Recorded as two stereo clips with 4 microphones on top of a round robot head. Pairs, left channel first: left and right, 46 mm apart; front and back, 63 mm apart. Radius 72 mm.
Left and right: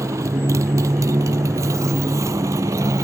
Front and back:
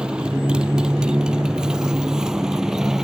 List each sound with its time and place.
0.0 s a motorcycle: 100° right; by 3.0 s 95° right